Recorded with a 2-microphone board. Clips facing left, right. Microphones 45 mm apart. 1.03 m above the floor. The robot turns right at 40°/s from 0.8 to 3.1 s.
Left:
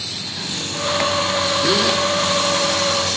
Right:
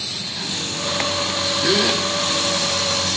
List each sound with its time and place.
1.6 s a gasp: centre (ahead or behind), 1.0 m; by 2.0 s 15° right (ahead or behind), 1.0 m